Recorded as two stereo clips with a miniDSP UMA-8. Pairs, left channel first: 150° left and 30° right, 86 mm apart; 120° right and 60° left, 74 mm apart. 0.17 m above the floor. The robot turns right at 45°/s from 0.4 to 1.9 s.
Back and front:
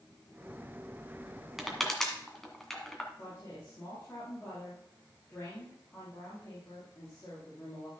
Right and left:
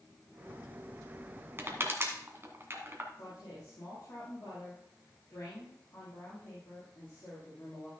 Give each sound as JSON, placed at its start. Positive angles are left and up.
{"t": 1.6, "sound": "crushing", "azimuth_deg": 55, "distance_m": 1.7}
{"t": 3.2, "sound": "a woman speaking", "azimuth_deg": -155, "distance_m": 5.5}